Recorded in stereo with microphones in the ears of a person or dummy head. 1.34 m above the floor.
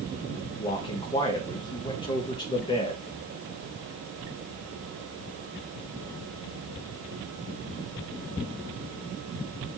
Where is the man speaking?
30° left (ahead or behind), 0.6 m.